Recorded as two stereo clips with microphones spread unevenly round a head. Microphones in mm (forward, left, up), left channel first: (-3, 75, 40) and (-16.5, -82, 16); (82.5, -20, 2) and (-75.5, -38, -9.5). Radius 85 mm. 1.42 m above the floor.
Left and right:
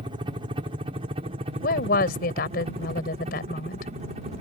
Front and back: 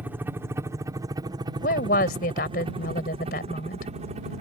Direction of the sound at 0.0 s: 105° right.